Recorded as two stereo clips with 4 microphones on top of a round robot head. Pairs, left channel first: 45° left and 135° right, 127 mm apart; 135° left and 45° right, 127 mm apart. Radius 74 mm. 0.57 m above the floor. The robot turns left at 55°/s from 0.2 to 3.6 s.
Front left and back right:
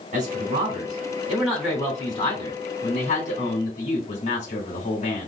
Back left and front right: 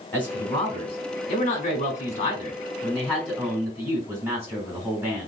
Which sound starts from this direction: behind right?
A man speaking, at 0.1 s.